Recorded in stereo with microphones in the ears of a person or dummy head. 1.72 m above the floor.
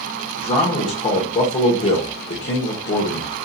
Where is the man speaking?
35° left (ahead or behind), 1.0 m.